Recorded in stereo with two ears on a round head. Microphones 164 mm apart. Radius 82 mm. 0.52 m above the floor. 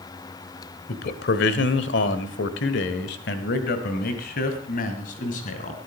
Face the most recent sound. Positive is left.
turn(degrees=45)  # may be behind; listen again after turning